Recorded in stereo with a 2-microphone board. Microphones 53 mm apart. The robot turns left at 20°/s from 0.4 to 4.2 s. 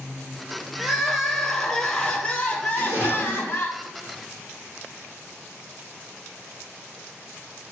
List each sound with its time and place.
0.8 s crying: 170° right, 0.6 m; by 3.7 s 130° left, 0.6 m
2.7 s a splash: 50° right (ahead or behind), 1.8 m; by 3.7 s 35° right (ahead or behind), 1.8 m